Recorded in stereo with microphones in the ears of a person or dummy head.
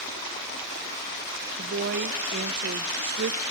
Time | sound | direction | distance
1.6 | a woman speaking | 50° right (ahead or behind) | 0.6 m